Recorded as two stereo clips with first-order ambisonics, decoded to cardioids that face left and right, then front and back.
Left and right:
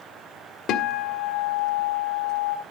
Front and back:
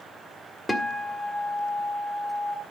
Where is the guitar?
80° left, 1.5 m.